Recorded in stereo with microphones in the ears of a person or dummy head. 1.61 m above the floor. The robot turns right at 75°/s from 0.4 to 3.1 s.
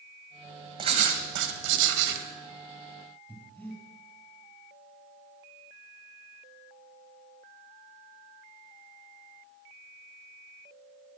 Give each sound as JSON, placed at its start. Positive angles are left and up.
{"t": 0.8, "sound": "writing", "azimuth_deg": -155, "distance_m": 1.5}
{"t": 3.3, "sound": "breathing", "side_deg": 10, "distance_m": 3.5}